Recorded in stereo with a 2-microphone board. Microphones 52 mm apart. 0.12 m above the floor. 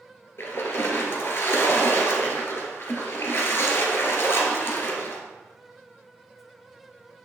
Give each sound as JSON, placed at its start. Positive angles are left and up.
{"t": 0.4, "sound": "a splash", "side_deg": 50, "distance_m": 2.0}